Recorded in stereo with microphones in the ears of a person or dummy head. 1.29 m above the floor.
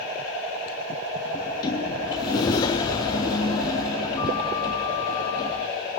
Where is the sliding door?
15° left (ahead or behind), 0.8 m.